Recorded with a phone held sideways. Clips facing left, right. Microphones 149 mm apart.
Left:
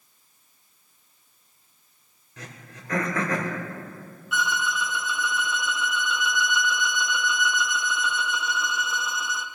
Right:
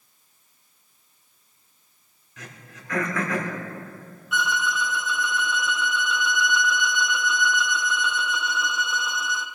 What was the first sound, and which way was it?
Throat clearing, 40° left (ahead or behind).